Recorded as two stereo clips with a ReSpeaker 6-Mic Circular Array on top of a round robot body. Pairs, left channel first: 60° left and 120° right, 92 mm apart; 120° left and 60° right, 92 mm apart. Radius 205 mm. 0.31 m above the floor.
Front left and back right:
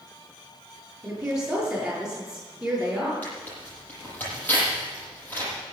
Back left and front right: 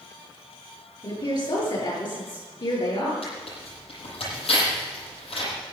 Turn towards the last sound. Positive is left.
turn(degrees=135)